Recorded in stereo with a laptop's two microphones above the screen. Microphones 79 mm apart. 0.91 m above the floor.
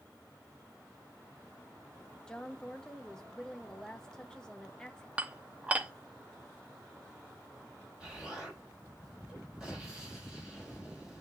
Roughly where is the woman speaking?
Centre.